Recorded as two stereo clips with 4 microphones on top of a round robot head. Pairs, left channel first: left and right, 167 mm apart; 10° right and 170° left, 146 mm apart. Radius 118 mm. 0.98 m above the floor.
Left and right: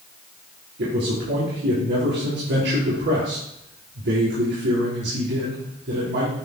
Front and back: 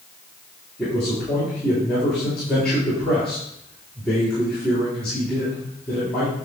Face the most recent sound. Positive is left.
turn(degrees=-95)